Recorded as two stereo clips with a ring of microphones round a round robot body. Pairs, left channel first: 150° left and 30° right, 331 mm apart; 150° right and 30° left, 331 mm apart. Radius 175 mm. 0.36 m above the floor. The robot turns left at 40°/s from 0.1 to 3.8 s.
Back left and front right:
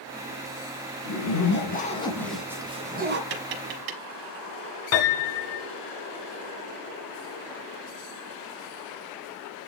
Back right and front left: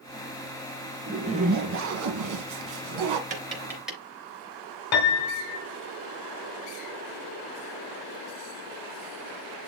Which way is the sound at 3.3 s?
40° right.